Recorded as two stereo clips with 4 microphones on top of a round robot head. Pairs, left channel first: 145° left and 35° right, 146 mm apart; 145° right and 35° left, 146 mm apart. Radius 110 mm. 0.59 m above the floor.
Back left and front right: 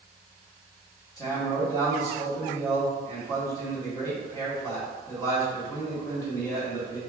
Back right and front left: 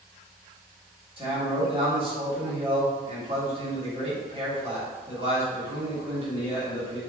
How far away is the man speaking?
About 1.8 m.